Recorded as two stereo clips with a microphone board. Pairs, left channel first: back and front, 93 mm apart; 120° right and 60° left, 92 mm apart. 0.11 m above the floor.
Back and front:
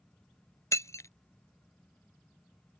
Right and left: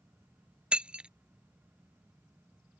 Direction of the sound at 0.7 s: 135° left.